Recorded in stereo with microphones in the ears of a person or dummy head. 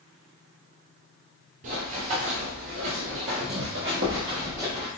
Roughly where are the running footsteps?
Right.